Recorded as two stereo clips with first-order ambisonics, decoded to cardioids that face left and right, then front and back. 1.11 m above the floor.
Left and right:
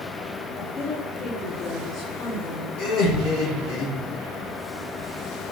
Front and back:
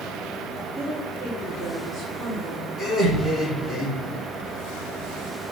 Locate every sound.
0.6 s a woman speaking: 95° left, 3 m; by 2.7 s 110° left, 4 m
2.8 s laughter: 85° left, 3.5 m